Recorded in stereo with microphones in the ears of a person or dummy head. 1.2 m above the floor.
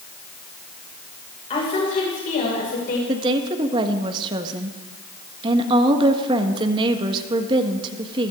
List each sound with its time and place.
1.5 s a woman speaking: 40° left (ahead or behind), 5.5 m; by 3.0 s 60° left (ahead or behind), 5.5 m
3.1 s a woman speaking: 25° right (ahead or behind), 1.5 m